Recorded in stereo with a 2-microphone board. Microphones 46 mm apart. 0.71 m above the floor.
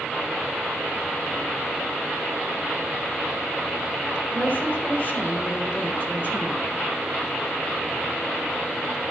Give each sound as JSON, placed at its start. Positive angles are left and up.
{"t": 4.3, "sound": "a woman speaking", "side_deg": 45, "distance_m": 3.5}